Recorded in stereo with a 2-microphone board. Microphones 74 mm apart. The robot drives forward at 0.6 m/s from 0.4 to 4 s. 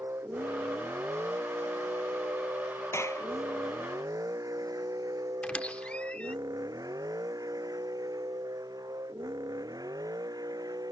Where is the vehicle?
40° right (ahead or behind); by 10.9 s 60° right (ahead or behind).